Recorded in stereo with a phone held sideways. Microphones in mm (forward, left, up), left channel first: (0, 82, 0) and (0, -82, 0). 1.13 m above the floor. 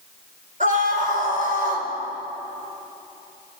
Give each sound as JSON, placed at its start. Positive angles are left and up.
{"t": 0.6, "sound": "a scream", "side_deg": -50, "distance_m": 4.0}